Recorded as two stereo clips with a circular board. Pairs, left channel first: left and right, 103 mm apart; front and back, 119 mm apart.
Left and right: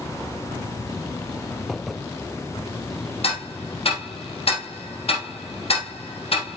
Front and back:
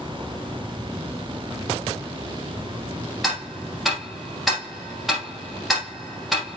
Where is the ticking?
90° left, 4.5 m.